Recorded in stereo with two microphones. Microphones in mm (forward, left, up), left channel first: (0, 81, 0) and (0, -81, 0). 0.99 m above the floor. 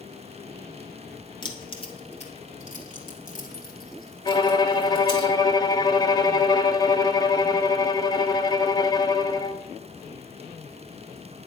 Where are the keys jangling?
30° left (ahead or behind), 1.8 m; by 5.2 s 80° left, 3.5 m.